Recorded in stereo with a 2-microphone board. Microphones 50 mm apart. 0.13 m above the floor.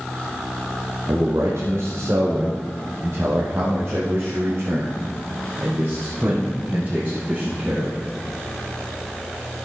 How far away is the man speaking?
About 3.5 m.